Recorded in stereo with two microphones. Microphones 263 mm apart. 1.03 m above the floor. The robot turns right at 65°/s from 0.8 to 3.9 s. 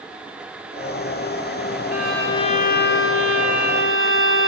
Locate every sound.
1.9 s a violin: 10° right, 0.6 m; by 4.5 s 120° left, 0.6 m